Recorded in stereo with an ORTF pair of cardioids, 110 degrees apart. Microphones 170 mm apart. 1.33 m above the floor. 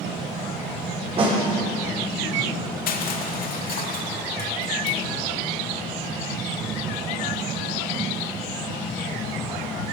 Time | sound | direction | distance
1.2 | a snare drum | 35° right | 5 m
2.9 | crushing | 60° left | 1.9 m